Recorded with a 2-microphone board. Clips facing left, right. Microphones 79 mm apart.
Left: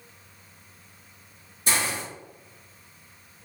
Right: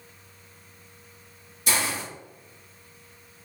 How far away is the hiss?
About 1.4 m.